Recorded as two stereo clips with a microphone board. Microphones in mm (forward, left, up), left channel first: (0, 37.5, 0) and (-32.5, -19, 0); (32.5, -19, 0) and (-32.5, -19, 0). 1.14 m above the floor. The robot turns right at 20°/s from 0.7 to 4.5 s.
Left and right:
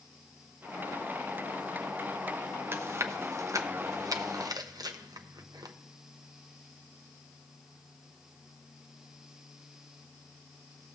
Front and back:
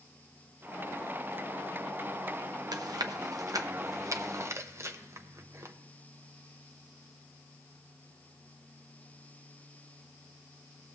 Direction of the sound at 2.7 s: 170° right.